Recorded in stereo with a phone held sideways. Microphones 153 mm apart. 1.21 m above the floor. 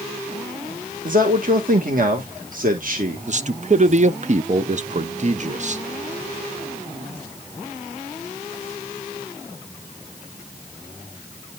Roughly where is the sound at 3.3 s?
Right.